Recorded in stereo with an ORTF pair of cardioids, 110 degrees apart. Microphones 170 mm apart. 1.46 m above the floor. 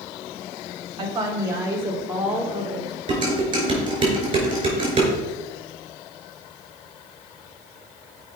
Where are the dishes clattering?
30° right, 4.5 m.